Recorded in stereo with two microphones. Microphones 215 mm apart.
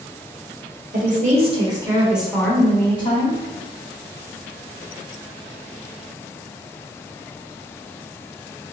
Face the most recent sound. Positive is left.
turn(degrees=30)  # may be behind; listen again after turning